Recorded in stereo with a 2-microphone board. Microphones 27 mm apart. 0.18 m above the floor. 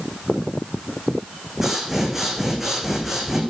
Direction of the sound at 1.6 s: 10° right (ahead or behind).